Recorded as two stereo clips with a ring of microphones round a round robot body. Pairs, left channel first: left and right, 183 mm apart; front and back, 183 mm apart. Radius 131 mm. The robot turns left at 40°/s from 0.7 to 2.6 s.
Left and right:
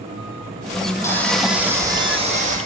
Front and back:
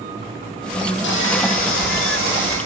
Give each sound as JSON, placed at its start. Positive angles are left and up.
{"t": 1.0, "sound": "sawing", "azimuth_deg": 15, "distance_m": 5.0}